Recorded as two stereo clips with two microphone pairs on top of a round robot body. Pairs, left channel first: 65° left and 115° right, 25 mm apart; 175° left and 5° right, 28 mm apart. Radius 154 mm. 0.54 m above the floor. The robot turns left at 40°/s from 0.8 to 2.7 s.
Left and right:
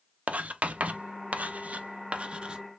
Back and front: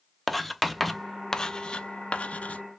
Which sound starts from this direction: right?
Writing, at 0.3 s.